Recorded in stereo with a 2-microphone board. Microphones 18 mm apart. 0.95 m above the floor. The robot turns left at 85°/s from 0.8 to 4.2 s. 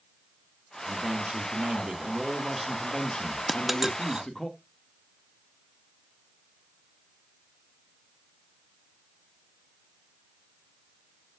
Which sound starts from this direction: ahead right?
A man speaking, at 0.9 s.